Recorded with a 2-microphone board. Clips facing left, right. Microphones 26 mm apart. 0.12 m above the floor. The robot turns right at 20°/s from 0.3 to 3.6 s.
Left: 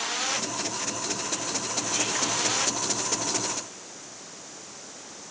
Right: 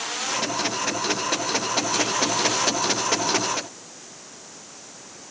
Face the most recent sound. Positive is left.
No sound to turn to.